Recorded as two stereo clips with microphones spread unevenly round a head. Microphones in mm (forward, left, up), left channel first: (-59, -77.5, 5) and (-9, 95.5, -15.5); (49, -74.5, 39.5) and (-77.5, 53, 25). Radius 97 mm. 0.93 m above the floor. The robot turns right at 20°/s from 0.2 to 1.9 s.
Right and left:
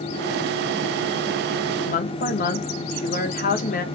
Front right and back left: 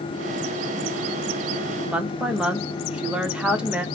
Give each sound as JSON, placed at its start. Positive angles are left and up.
{"t": 1.9, "sound": "a woman speaking", "azimuth_deg": -145, "distance_m": 0.8}